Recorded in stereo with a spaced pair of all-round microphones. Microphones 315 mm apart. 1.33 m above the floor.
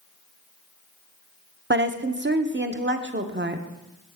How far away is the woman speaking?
About 0.8 m.